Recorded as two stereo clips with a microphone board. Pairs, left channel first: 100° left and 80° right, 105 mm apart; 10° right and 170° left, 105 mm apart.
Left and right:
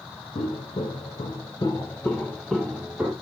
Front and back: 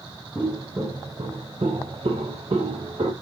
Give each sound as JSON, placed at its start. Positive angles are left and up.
{"t": 0.3, "sound": "footsteps", "azimuth_deg": 105, "distance_m": 1.2}